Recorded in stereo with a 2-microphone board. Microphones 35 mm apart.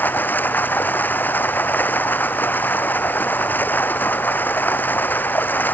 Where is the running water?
65° left (ahead or behind).